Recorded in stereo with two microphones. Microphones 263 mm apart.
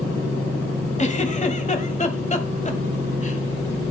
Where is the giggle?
25° left (ahead or behind), 1.2 m.